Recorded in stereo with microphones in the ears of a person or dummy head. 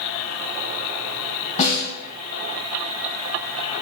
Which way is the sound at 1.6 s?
40° left (ahead or behind).